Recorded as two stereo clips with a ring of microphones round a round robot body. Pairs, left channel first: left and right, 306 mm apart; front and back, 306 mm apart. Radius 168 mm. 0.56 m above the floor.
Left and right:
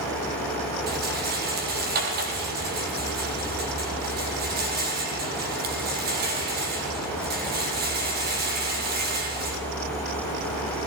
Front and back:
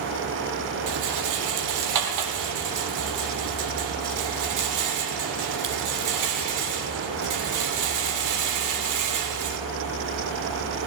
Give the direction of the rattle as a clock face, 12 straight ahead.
5 o'clock.